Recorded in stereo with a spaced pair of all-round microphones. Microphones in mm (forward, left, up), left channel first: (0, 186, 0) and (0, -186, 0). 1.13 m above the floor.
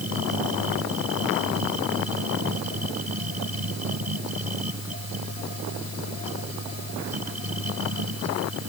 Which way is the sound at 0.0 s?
70° right (ahead or behind).